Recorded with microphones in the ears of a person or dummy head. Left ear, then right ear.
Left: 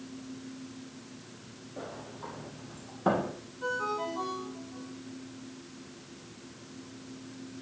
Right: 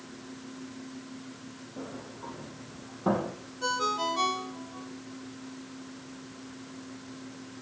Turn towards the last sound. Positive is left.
turn(degrees=-85)